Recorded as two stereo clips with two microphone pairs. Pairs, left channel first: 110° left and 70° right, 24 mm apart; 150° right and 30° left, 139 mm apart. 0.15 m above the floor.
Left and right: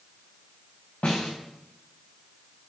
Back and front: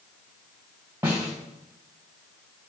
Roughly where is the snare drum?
Left.